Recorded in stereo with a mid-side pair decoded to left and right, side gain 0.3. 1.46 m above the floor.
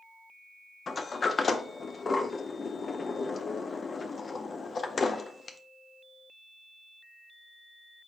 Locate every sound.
0.9 s a sliding door: 50° left, 0.5 m